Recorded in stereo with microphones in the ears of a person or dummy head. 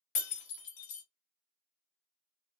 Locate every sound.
0.1 s breaking glass: 45° left (ahead or behind), 1.0 m